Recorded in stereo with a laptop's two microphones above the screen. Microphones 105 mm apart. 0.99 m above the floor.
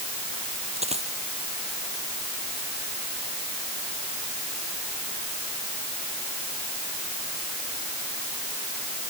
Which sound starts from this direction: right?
A dropped coin, at 0.8 s.